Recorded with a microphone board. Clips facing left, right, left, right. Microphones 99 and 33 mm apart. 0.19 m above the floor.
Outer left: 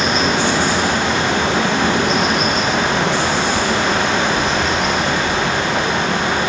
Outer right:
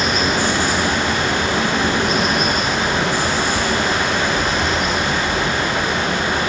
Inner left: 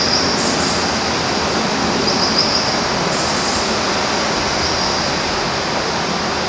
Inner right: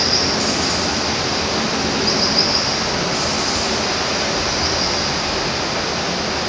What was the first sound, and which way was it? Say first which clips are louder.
Running water: outer left 2 dB, inner left 2 dB; 85° left.